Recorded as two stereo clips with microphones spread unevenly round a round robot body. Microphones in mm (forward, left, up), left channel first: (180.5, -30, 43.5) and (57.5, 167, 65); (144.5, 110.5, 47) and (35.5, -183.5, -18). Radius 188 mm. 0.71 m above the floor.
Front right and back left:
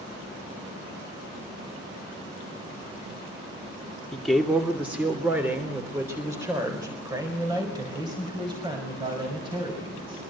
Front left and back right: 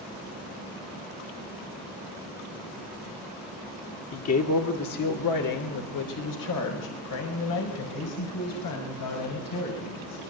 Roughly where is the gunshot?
No gunshot in this recording.